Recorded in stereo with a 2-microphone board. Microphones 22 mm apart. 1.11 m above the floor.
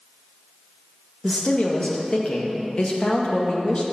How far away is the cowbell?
No cowbell in this recording.